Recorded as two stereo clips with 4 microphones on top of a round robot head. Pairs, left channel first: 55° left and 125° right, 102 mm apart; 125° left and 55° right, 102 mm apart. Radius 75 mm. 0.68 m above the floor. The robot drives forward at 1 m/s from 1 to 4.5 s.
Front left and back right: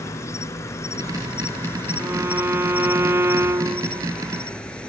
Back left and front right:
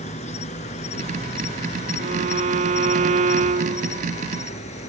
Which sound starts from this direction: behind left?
An insect, at 0.0 s.